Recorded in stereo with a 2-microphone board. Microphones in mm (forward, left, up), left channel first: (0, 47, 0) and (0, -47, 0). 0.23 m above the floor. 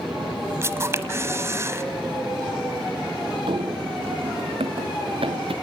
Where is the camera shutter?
30° right (ahead or behind), 1.1 m.